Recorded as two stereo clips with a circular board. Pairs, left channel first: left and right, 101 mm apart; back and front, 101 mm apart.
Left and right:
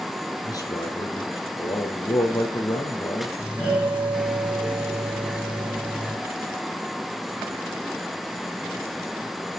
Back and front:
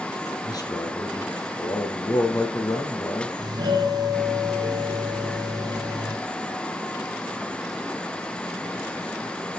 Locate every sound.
0.4 s a man speaking: 135° left, 3 m
3.4 s a doorbell: 10° right, 3 m